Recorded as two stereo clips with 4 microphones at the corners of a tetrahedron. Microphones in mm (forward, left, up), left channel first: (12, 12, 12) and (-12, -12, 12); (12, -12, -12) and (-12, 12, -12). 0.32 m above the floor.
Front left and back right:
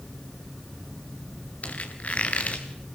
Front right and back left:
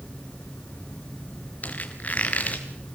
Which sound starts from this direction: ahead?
A squeak, at 1.6 s.